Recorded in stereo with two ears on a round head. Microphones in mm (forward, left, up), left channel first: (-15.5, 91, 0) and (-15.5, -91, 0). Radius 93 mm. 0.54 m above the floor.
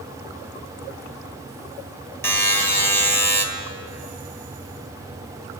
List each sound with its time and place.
2.2 s a buzzer: 10° left (ahead or behind), 1.6 m